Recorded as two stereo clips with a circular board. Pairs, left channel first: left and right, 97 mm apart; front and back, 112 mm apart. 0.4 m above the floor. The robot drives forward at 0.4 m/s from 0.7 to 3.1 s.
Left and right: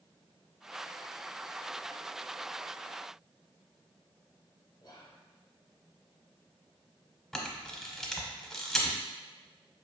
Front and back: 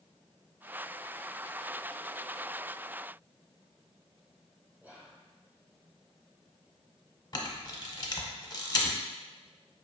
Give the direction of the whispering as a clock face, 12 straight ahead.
8 o'clock.